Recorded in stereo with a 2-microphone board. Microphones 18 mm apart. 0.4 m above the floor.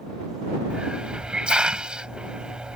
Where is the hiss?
75° right (ahead or behind).